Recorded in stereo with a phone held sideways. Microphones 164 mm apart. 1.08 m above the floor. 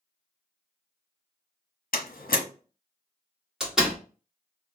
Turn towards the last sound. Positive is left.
turn(degrees=-5)  # may be behind; listen again after turning